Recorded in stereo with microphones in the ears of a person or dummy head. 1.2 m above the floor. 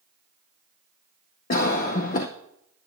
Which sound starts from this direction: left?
A cough, at 1.5 s.